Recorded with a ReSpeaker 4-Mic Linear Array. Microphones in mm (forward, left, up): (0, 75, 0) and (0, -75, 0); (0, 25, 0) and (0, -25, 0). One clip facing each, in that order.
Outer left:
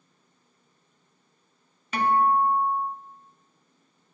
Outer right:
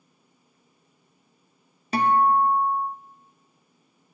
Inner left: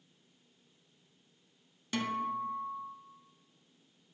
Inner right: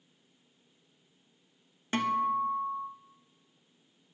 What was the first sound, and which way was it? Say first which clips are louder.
A guitar: outer right 2 dB, inner right 6 dB; 40° right (ahead or behind).